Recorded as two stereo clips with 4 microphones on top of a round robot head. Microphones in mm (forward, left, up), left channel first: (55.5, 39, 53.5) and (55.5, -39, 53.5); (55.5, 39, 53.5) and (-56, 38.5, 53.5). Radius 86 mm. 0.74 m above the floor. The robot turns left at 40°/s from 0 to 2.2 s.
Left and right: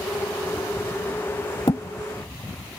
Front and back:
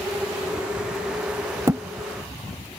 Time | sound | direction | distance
1.7 | a thud | 125° left | ?